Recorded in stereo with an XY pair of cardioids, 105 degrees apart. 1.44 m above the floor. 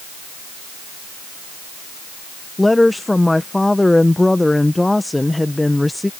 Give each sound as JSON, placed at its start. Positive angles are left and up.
{"t": 2.6, "sound": "a woman speaking", "azimuth_deg": 10}